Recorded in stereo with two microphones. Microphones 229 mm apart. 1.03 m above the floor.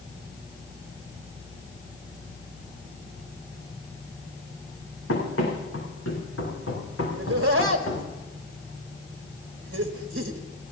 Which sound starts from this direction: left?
Running footsteps, at 5.1 s.